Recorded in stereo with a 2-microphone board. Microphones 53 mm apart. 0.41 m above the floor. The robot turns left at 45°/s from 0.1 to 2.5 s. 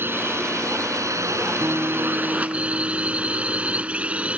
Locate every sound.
0.0 s a drone: 45° right; by 4.4 s 155° right
1.6 s a guitar: 45° right; by 4.3 s 85° right